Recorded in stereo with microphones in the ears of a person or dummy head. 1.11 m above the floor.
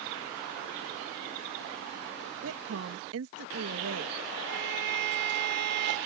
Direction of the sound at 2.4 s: 70° right (ahead or behind).